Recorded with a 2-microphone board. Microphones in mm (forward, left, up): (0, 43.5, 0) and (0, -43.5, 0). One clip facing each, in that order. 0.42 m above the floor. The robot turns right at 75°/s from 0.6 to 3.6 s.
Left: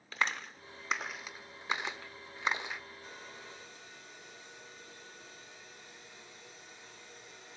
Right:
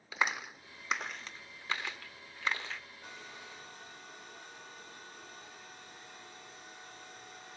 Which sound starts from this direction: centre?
A clap, at 0.1 s.